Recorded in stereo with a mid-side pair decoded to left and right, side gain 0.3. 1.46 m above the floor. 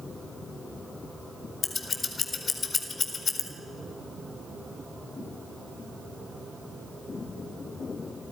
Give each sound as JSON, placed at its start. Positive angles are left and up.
{"t": 1.6, "sound": "scissors", "azimuth_deg": 60, "distance_m": 4.5}